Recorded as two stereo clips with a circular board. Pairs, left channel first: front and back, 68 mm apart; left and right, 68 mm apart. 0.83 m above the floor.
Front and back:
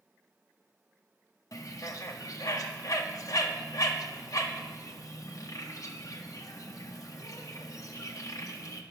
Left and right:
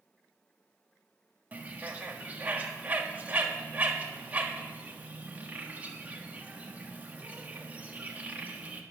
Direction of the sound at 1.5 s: 25° right.